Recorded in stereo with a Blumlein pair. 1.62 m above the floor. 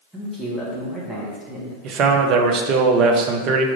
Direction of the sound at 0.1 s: Straight ahead.